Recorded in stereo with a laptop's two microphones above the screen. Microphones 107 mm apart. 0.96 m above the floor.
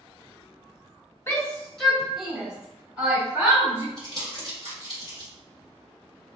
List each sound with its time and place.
1.3 s a shout: 25° left (ahead or behind), 0.6 m; by 3.9 s 20° right (ahead or behind), 2 m
4.0 s crumpling: 45° right (ahead or behind), 1.6 m